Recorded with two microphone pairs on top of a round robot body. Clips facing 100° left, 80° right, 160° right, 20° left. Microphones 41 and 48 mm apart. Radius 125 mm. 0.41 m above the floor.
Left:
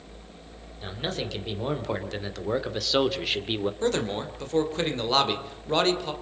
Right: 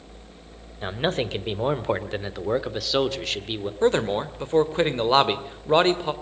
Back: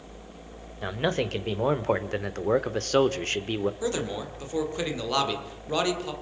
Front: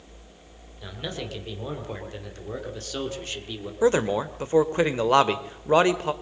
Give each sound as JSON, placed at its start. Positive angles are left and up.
{"t": 0.8, "sound": "a man speaking", "azimuth_deg": -120, "distance_m": 2.5}
{"t": 3.8, "sound": "a man speaking", "azimuth_deg": -20, "distance_m": 2.0}